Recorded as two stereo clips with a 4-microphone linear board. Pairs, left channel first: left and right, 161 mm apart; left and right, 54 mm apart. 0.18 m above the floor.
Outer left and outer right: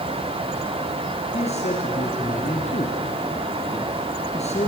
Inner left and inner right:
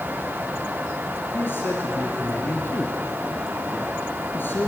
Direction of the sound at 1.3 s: 45° left (ahead or behind).